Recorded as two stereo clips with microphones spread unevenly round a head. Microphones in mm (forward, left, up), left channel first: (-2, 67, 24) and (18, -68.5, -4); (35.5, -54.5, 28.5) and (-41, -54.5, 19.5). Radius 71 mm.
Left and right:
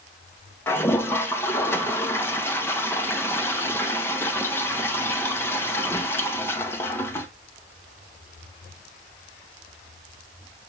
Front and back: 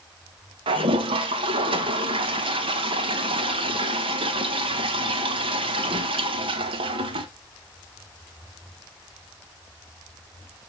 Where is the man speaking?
No man speaking in this recording.